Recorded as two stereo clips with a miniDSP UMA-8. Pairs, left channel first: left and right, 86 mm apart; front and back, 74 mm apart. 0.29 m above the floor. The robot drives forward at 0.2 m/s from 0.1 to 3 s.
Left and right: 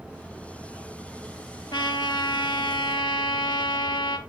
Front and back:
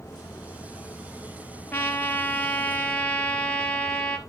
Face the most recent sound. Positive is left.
turn(degrees=70)